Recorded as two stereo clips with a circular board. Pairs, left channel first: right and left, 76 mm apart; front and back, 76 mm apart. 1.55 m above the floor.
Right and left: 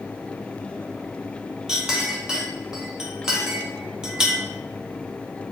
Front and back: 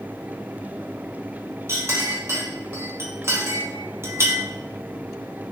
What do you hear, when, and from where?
1.7 s a clink: 165° left, 0.7 m